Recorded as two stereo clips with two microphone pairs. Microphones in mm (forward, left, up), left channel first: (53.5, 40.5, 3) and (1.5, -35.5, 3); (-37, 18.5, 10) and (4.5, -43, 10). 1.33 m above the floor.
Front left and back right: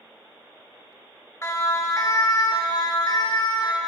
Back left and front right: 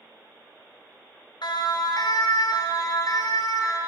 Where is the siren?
115° left, 2.5 m; by 3.8 s 90° left, 5 m.